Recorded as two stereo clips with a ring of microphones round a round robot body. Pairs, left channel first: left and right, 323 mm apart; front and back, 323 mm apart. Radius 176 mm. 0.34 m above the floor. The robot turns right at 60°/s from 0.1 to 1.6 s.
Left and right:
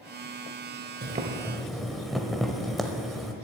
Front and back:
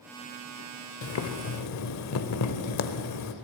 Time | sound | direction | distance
1.0 | boiling | 35° right | 0.9 m